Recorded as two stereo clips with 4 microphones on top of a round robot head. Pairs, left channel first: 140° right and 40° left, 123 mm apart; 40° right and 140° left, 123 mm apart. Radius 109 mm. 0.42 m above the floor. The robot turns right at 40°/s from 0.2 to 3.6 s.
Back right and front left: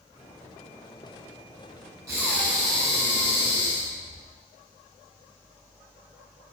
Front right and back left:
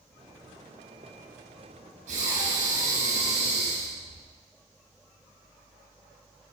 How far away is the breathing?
About 5.5 m.